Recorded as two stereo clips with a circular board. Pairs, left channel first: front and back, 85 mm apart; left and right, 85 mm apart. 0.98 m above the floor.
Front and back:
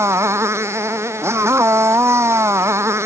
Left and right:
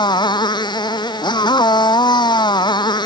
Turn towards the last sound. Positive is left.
turn(degrees=120)